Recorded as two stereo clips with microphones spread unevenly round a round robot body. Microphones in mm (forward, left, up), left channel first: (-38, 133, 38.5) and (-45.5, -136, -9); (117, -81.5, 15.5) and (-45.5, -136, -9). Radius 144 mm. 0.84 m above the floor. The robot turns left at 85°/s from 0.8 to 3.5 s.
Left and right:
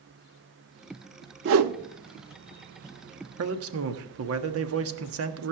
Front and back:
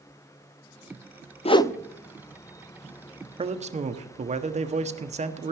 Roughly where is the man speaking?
Right.